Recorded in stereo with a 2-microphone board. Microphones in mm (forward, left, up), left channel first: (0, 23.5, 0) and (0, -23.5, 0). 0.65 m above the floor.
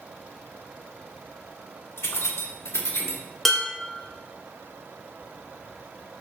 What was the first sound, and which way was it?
Keys jangling, 60° left (ahead or behind).